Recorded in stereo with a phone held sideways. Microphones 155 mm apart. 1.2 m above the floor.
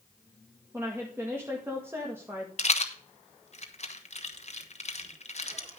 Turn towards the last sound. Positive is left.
turn(degrees=50)  # may be behind; listen again after turning